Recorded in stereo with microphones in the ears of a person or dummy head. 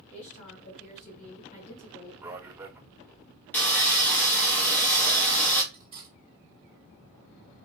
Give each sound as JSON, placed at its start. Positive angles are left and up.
{"t": 0.1, "sound": "a woman speaking", "side_deg": 45, "distance_m": 1.4}
{"t": 2.2, "sound": "a man speaking", "side_deg": -10, "distance_m": 0.6}
{"t": 3.5, "sound": "sawing", "side_deg": 5, "distance_m": 0.9}
{"t": 5.7, "sound": "cutlery clinking", "side_deg": -30, "distance_m": 2.0}